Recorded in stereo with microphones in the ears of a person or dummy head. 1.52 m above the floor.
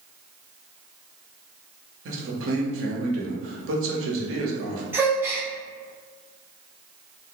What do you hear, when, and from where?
2.0 s a man speaking: 70° right (ahead or behind), 0.7 m
4.9 s a gasp: 10° right (ahead or behind), 0.5 m